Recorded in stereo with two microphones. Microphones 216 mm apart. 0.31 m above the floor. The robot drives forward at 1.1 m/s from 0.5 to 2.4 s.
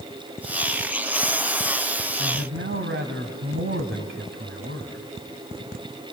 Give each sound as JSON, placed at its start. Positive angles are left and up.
{"t": 2.2, "sound": "a man speaking", "side_deg": -60, "distance_m": 2.0}